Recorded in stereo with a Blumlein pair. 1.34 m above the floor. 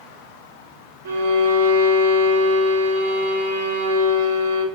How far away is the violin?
About 1.1 m.